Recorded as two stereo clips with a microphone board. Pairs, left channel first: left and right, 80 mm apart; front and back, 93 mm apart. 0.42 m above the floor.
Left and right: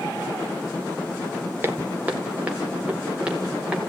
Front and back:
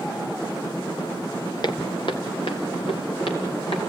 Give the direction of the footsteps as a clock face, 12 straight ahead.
1 o'clock.